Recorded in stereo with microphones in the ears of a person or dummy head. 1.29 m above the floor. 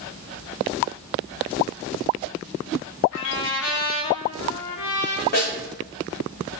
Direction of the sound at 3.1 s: 75° left (ahead or behind).